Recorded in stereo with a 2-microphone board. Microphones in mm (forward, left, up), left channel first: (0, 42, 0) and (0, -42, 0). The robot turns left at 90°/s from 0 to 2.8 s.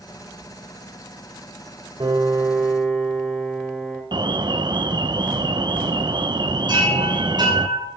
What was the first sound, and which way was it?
A piano, 105° right.